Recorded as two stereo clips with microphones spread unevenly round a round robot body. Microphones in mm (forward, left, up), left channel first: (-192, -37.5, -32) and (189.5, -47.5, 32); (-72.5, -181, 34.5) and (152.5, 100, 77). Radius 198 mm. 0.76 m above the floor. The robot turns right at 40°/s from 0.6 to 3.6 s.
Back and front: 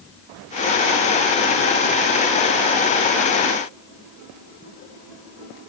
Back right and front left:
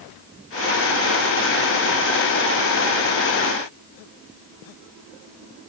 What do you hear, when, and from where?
Only background noise.